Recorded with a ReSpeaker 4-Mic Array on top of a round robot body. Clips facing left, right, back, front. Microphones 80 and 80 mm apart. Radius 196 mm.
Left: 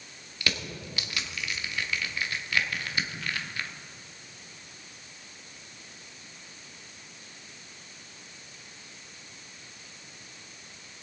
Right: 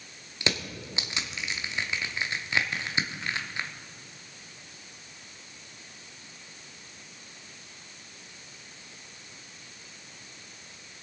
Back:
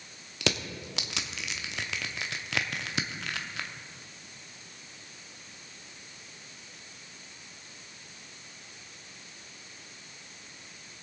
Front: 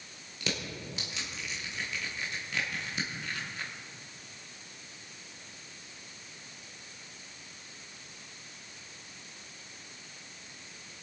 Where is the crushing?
160° right, 0.9 m.